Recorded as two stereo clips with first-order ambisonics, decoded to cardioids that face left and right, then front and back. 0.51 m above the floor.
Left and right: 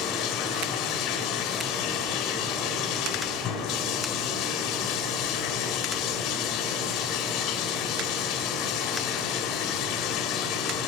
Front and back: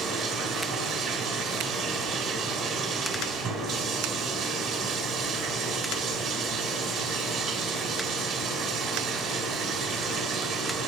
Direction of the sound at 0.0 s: 135° left.